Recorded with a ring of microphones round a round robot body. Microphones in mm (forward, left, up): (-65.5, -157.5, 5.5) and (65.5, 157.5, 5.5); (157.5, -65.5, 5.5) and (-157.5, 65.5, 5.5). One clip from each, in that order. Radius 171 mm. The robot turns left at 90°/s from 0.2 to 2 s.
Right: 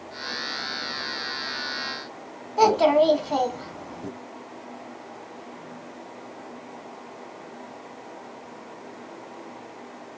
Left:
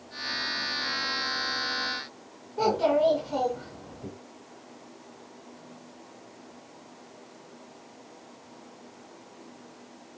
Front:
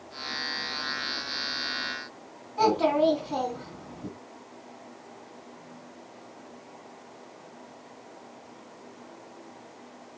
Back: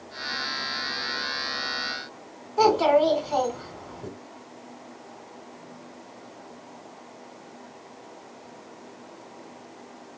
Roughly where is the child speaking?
Behind right.